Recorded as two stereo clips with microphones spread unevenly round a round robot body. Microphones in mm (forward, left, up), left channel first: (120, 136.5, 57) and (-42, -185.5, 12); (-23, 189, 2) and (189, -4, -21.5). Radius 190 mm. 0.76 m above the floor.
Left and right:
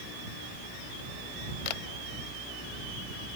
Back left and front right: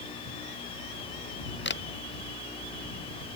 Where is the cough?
I don't hear a cough.